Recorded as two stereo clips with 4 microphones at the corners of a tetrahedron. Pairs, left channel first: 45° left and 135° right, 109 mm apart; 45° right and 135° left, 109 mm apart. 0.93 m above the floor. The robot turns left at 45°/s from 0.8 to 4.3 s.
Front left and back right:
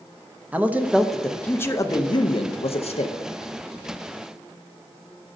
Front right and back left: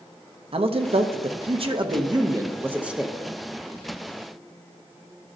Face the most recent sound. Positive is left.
turn(degrees=-5)